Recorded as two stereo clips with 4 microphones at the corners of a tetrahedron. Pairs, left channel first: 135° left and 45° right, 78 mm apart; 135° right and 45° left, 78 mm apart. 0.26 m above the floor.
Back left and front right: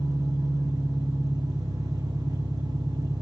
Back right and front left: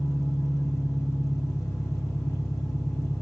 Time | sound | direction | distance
0.0 | an engine running | 85° right | 6 m